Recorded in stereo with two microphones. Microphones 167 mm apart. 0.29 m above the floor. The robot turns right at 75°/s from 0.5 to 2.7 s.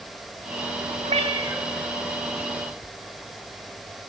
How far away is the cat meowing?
About 1.5 m.